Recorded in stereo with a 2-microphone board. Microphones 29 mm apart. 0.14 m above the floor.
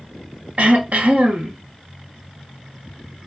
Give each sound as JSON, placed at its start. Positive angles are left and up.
{"t": 0.6, "sound": "throat clearing", "side_deg": -55, "distance_m": 0.7}